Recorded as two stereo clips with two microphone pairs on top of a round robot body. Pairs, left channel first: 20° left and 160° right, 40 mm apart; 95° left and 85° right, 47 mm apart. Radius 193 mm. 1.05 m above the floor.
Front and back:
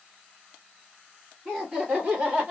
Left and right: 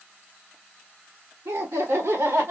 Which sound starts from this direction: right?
Laughter, at 1.4 s.